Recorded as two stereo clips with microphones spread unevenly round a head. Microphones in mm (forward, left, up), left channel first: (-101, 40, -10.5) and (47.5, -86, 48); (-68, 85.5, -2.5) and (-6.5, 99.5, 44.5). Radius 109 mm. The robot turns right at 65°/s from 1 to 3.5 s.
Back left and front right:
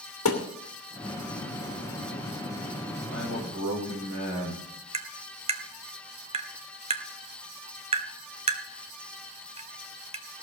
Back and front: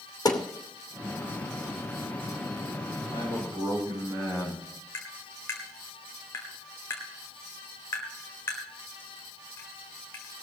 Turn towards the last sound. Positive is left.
turn(degrees=-100)